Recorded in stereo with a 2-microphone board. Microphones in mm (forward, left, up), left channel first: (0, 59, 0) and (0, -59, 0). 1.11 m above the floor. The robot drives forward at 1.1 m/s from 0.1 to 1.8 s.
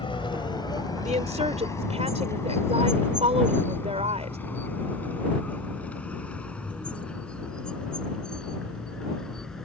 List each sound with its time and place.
0.0 s a vehicle: 45° left (ahead or behind); by 9.7 s 5° left (ahead or behind)
1.1 s a woman speaking: 75° right (ahead or behind); by 4.4 s 65° right (ahead or behind)